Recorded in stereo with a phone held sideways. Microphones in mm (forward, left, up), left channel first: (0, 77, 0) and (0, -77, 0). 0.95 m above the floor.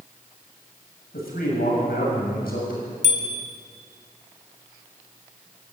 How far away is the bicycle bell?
About 3.5 m.